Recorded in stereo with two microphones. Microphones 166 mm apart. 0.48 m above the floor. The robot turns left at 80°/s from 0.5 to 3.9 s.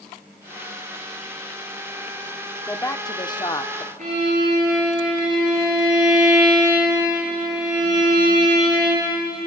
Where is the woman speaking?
15° left (ahead or behind), 0.7 m; by 3.9 s 20° left (ahead or behind), 0.7 m.